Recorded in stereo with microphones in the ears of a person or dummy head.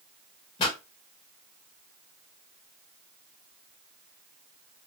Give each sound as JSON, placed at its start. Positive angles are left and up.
{"t": 0.6, "sound": "a pop", "side_deg": 30, "distance_m": 1.6}